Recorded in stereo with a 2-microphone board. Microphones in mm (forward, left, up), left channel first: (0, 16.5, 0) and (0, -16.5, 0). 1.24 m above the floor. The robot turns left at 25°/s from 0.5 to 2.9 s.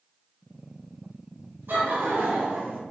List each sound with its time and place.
1.7 s laughter: 80° right, 0.8 m; by 2.8 s 70° right (ahead or behind), 0.8 m